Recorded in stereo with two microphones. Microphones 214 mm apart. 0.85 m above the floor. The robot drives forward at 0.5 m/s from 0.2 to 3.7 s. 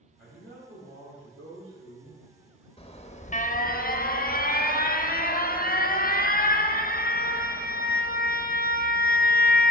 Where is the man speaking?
60° right (ahead or behind), 2.5 m; by 2.2 s 75° right (ahead or behind), 2 m.